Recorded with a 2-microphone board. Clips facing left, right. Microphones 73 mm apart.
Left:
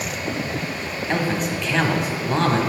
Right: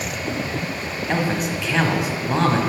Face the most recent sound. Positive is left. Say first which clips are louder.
# even
turn(degrees=-5)  # may be behind; listen again after turning